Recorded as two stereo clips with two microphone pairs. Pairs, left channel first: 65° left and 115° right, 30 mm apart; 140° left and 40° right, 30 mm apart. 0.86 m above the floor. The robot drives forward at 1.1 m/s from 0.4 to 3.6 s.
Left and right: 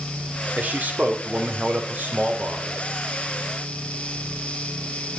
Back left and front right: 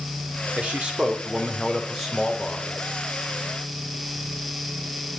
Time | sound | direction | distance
0.6 | a man speaking | 90° right | 2.5 m